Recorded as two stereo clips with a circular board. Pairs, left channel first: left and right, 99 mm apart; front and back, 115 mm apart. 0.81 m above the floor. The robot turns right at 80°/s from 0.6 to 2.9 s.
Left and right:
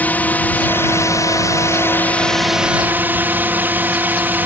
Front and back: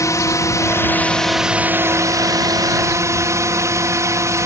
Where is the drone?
30° left; by 4.5 s 145° right.